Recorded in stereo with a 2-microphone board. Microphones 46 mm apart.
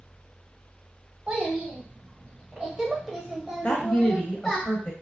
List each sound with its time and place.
1.3 s a child speaking: 25° right (ahead or behind), 1.6 m; by 4.6 s 5° left (ahead or behind), 1.1 m
3.6 s a woman speaking: 25° left (ahead or behind), 1.1 m